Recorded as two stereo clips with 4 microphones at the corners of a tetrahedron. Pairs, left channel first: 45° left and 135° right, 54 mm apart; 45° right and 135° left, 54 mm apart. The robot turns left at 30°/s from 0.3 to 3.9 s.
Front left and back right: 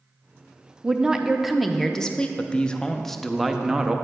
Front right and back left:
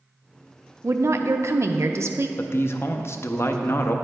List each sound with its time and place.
0.8 s a woman speaking: 160° left, 0.5 m; by 2.3 s 115° left, 0.5 m
2.4 s a man speaking: 15° right, 0.5 m; by 4.0 s 60° right, 0.5 m